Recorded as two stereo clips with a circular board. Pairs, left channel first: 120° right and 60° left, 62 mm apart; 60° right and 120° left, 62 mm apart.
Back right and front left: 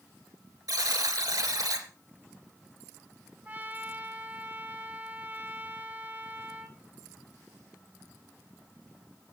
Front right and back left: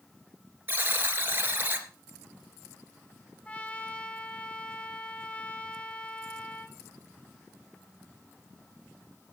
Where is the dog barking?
No dog barking in this recording.